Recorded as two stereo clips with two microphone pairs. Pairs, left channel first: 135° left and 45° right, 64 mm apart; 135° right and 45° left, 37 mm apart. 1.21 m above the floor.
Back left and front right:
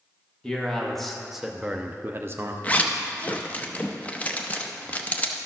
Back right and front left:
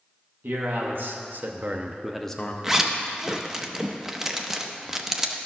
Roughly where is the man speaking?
Ahead left.